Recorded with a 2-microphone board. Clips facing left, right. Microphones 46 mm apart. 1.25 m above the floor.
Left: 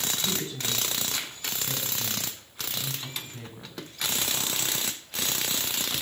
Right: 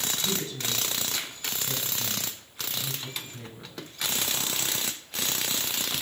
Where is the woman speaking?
25° left (ahead or behind), 8.5 m.